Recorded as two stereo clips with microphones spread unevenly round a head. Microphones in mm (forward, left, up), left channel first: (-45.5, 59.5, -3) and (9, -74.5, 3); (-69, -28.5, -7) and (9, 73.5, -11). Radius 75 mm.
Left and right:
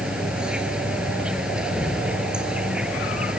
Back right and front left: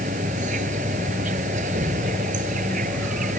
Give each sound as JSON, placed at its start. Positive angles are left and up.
{"t": 0.0, "sound": "an insect", "azimuth_deg": 15}